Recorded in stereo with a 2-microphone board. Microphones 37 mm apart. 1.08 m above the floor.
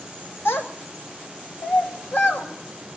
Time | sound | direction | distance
0.5 | a child speaking | 75° left (ahead or behind) | 1.6 m